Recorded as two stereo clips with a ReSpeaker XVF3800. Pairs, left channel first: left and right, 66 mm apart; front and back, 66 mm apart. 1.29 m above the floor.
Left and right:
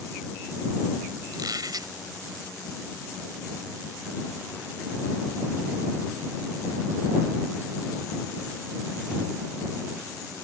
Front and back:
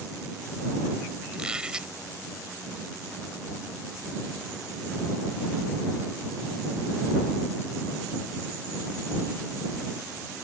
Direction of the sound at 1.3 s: 105° right.